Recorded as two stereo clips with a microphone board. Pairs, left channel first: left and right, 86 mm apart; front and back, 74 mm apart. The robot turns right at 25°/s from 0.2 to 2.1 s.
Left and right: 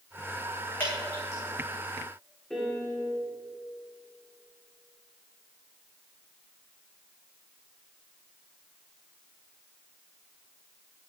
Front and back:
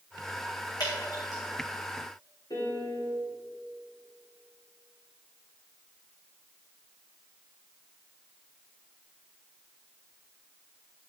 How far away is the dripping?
About 4 m.